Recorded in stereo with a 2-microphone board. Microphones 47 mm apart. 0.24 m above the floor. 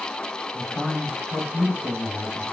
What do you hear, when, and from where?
0.5 s a man speaking: 25° left (ahead or behind), 1.5 m